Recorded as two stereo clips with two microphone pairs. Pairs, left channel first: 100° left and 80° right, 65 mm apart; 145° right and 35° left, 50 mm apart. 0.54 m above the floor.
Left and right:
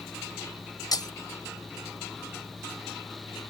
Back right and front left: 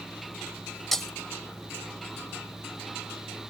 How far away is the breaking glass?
About 1.0 m.